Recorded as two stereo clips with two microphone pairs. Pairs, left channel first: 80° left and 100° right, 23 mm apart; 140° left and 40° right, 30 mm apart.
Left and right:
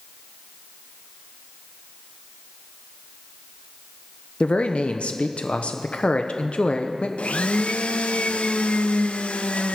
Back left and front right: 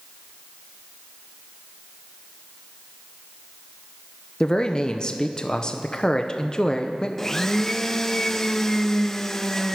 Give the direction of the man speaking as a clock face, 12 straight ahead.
9 o'clock.